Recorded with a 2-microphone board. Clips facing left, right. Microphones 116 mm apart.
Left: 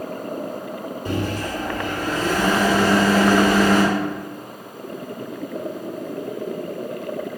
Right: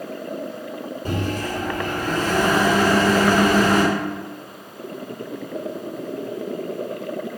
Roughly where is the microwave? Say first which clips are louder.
Even; right.